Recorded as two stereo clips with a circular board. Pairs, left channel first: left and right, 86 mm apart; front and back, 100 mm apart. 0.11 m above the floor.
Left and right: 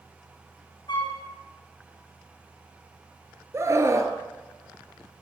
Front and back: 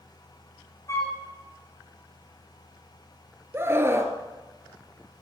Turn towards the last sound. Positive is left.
turn(degrees=-125)